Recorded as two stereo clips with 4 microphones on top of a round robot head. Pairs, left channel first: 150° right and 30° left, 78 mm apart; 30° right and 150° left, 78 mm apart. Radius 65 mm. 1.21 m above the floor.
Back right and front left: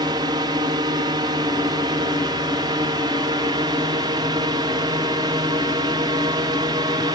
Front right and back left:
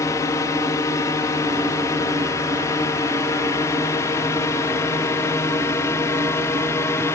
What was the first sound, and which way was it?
A drone, 10° left.